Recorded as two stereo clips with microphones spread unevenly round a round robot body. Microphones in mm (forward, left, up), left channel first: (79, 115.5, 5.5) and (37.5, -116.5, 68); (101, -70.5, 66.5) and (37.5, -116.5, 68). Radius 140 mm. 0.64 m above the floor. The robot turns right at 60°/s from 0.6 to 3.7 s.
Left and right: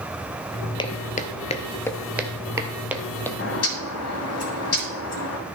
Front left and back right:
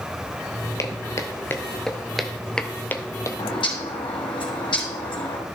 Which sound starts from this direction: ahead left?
A bird, at 3.4 s.